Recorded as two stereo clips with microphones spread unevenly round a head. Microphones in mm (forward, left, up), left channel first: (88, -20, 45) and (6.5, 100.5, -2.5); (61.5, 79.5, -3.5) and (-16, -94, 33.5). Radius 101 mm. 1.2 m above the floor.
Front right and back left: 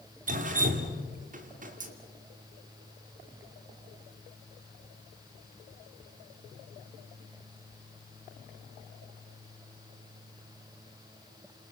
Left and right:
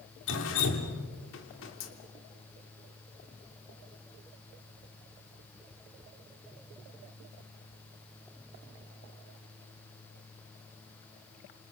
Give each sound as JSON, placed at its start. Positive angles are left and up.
{"t": 0.3, "sound": "dripping", "azimuth_deg": 95, "distance_m": 2.5}